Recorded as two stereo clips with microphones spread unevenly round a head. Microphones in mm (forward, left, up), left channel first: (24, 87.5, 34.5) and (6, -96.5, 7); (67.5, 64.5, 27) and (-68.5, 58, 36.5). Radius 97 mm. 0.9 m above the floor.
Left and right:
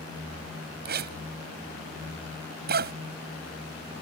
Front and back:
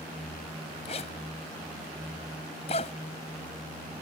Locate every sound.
0.8 s a zipper: 55° right